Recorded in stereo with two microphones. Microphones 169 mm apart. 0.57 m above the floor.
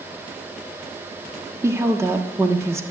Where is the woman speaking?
15° right (ahead or behind), 0.9 m.